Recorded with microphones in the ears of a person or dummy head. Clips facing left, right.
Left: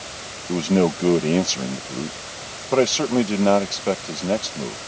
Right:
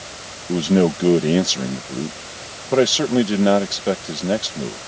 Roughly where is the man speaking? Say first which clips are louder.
Right 2 dB; centre.